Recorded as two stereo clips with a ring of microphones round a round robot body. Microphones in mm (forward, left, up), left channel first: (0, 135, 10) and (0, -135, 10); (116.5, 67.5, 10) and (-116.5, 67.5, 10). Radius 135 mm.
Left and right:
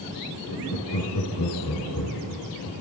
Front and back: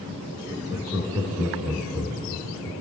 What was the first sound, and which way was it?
Laughter, 100° left.